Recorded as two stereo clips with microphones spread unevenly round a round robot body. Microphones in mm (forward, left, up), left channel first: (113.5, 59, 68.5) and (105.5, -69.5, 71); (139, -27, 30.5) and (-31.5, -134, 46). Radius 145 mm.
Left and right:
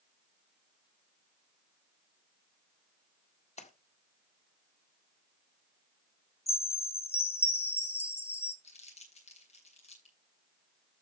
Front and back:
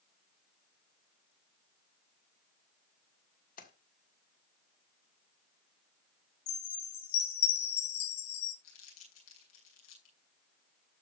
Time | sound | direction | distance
3.6 | a splash | 75° left | 1.8 m
6.5 | a chime | 45° left | 2.5 m
8.6 | crumpling | 55° left | 7.5 m